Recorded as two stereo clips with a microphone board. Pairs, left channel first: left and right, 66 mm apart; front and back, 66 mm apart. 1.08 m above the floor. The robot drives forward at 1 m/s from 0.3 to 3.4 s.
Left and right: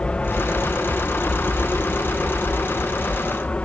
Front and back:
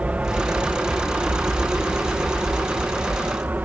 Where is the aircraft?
140° left.